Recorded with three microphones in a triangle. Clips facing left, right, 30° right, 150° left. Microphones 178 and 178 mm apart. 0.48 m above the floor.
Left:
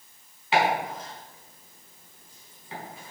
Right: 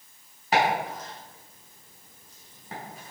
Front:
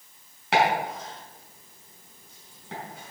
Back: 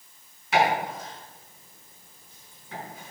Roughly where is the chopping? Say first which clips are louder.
Even, even; ahead right.